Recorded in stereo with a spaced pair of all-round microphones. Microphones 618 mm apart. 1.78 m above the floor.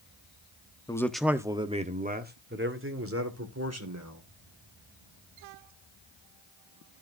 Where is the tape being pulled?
I don't hear tape being pulled.